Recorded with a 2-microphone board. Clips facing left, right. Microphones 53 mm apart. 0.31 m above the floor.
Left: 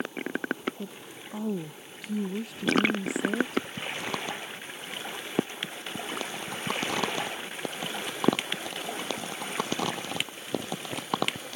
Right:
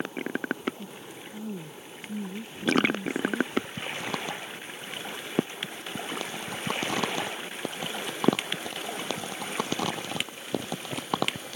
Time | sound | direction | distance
0.8 | a woman speaking | 80° left | ?